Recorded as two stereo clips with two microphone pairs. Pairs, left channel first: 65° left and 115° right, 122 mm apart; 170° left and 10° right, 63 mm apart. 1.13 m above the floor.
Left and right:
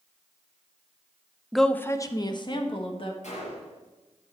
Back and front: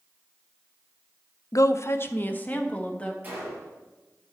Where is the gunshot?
50° left, 4 m.